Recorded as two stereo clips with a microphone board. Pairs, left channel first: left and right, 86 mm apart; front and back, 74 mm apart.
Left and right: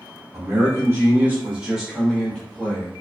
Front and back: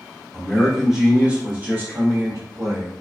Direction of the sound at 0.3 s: 80° right.